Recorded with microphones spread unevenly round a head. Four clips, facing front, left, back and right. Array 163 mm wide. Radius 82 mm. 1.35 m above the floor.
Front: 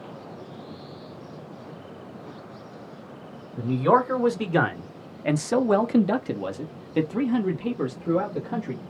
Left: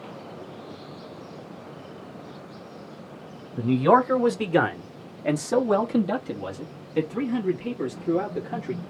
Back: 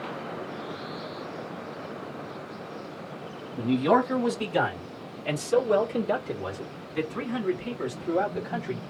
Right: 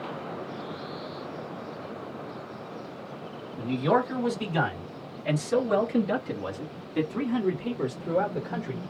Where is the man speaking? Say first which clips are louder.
Left 6 dB, front 2 dB; 80° left, 1.3 m; by 8.8 s 25° right, 2.0 m.